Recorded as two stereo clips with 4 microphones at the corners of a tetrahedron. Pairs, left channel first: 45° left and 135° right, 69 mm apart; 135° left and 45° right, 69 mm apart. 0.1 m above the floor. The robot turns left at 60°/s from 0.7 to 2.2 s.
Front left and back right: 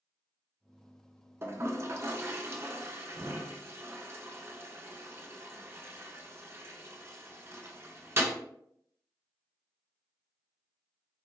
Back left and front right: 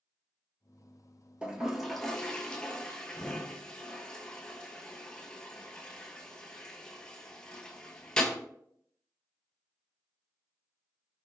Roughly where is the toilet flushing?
Right.